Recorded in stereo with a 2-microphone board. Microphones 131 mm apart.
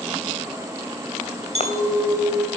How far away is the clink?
About 2 m.